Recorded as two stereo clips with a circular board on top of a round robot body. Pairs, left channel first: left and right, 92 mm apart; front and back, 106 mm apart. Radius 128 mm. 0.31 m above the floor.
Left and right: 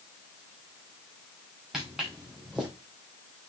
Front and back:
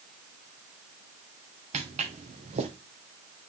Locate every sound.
1.7 s footsteps: 175° right, 2 m